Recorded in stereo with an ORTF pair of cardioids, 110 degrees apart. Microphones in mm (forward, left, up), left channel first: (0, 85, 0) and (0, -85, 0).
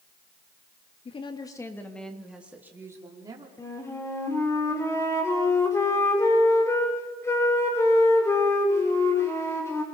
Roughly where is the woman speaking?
Ahead left.